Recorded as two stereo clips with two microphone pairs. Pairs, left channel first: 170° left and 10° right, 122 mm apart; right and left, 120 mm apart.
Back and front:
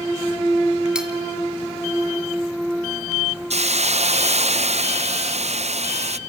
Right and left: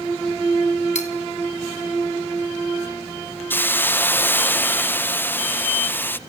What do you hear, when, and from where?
0.9 s cutlery clinking: 95° right, 1.7 m
3.5 s a hiss: 20° right, 0.6 m